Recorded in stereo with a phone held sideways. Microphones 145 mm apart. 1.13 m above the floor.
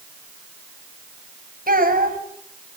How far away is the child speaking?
About 5 m.